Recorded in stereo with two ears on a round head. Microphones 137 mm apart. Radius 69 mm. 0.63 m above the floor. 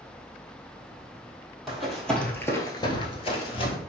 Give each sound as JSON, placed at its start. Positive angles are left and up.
{"t": 1.7, "sound": "running footsteps", "side_deg": 0, "distance_m": 1.3}